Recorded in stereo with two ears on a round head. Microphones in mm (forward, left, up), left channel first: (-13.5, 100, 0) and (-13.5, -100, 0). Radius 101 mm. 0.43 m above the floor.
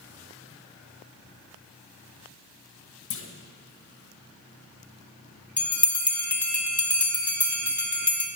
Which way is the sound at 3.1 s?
60° left (ahead or behind).